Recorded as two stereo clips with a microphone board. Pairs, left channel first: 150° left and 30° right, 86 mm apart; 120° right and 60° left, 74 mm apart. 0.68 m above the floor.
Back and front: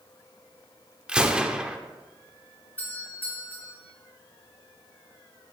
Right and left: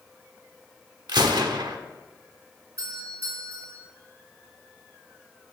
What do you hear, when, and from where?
1.1 s a gunshot: 50° left, 0.9 m
2.8 s a doorbell: 90° left, 4 m